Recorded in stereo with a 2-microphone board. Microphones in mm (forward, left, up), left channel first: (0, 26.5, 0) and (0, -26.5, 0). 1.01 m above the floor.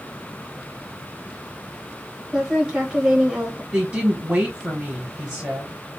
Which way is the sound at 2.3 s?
10° right (ahead or behind).